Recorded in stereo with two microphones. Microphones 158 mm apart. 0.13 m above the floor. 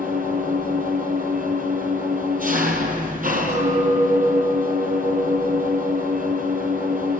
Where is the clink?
50° right (ahead or behind), 3.5 m.